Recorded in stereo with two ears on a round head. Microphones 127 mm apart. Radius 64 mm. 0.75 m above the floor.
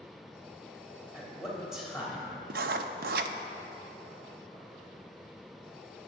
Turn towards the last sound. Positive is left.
turn(degrees=-70)  # may be behind; listen again after turning